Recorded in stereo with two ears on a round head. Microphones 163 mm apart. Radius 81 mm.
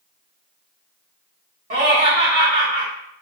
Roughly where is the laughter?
Right.